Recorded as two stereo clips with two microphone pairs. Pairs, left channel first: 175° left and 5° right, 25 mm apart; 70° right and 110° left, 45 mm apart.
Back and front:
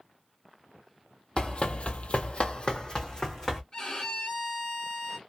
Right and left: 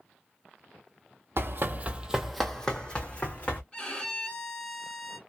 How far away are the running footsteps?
About 0.7 m.